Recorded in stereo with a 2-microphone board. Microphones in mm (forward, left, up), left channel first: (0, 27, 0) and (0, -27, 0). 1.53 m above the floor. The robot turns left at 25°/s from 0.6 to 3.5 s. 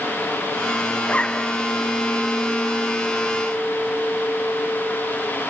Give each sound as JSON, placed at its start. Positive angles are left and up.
{"t": 1.0, "sound": "a zipper", "side_deg": 25}